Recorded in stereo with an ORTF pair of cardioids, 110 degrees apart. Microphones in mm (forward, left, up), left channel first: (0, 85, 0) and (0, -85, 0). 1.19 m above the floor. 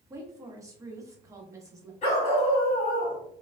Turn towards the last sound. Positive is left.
turn(degrees=40)